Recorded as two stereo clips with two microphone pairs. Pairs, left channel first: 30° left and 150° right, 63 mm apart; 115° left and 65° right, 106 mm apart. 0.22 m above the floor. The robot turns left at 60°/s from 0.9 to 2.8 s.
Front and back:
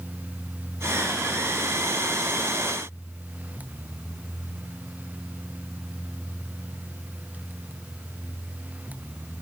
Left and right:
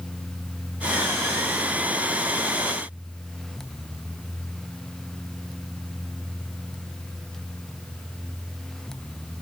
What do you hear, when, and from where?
Only background noise.